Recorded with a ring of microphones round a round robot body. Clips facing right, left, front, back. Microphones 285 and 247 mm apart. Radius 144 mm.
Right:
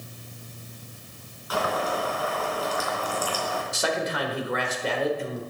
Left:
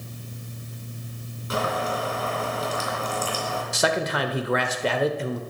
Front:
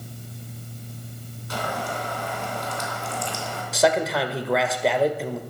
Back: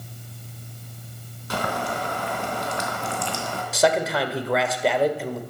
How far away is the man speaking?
About 1.5 m.